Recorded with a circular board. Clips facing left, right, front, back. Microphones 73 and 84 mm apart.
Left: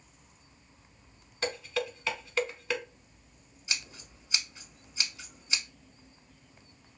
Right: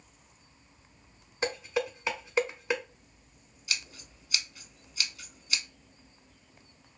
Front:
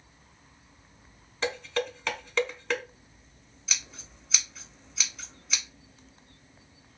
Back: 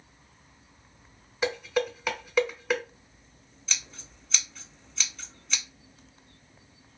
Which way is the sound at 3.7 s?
80° left.